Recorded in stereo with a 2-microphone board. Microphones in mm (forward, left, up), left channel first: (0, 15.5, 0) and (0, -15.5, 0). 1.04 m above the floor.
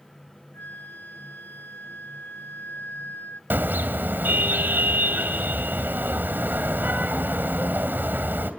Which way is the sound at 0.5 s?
80° left.